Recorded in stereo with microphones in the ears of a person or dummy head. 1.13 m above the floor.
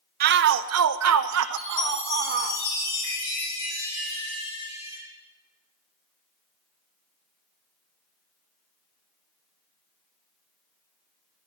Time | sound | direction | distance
0.2 | a shout | 50° right (ahead or behind) | 0.8 m
1.6 | a chime | 55° left (ahead or behind) | 9 m